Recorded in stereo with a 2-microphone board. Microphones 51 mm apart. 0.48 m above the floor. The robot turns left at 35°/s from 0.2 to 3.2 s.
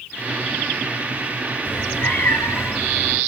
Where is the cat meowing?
145° left, 3 m; by 3.2 s 90° left, 3 m.